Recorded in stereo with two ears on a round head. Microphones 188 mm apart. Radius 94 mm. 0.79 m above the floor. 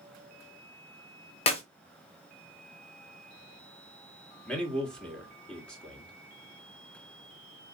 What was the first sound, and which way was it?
A clap, 30° left (ahead or behind).